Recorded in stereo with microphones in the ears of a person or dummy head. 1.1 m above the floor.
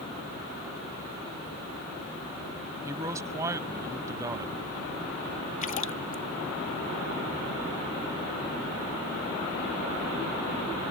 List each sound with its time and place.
2.9 s a man speaking: 20° right (ahead or behind)
5.6 s a splash: 45° left (ahead or behind)